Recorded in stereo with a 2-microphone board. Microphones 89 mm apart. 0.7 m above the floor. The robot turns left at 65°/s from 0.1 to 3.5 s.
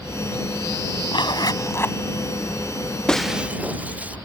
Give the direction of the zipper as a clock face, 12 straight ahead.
9 o'clock.